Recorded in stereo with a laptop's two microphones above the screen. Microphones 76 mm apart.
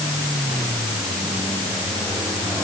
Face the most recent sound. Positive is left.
No sound to turn to.